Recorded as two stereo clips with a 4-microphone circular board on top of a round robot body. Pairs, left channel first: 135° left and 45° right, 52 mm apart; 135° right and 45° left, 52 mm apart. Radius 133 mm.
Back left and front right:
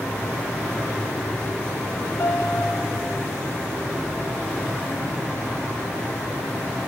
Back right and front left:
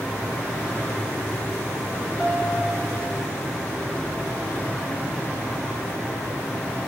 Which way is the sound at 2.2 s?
110° left.